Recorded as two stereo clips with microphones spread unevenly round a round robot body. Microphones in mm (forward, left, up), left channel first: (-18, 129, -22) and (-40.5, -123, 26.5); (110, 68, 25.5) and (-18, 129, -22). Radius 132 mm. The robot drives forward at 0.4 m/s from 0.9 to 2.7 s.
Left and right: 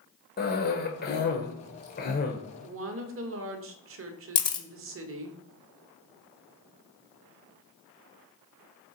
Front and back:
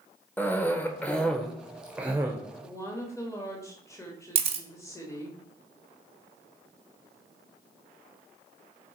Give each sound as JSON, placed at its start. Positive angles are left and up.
{"t": 0.4, "sound": "a cough", "azimuth_deg": 65, "distance_m": 1.1}
{"t": 2.6, "sound": "a woman speaking", "azimuth_deg": -115, "distance_m": 1.2}
{"t": 4.3, "sound": "a camera shutter", "azimuth_deg": 145, "distance_m": 1.1}